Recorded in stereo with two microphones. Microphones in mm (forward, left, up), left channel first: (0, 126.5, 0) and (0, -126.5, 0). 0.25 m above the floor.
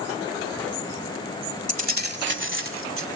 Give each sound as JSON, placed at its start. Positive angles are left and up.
{"t": 1.7, "sound": "keys jangling", "side_deg": -30, "distance_m": 1.1}